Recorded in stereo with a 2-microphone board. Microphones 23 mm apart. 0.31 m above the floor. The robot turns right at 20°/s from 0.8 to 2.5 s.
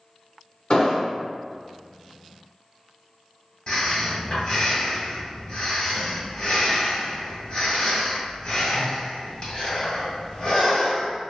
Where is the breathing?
35° left (ahead or behind), 1.8 m.